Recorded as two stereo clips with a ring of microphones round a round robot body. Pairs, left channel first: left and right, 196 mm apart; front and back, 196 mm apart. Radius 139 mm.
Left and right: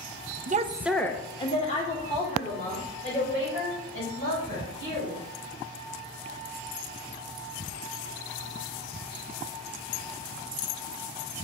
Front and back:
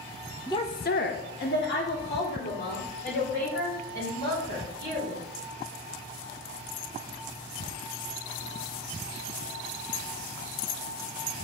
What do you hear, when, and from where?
0.5 s a woman speaking: 70° right, 0.7 m; by 5.2 s 45° left, 6.5 m